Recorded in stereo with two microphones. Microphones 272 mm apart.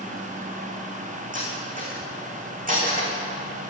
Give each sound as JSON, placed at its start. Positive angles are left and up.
{"t": 1.3, "sound": "cutlery clinking", "side_deg": -30, "distance_m": 5.0}